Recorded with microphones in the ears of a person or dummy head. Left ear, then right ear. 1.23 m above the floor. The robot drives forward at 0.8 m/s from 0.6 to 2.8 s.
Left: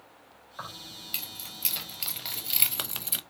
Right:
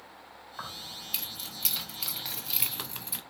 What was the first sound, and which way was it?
Keys jangling, 5° left (ahead or behind).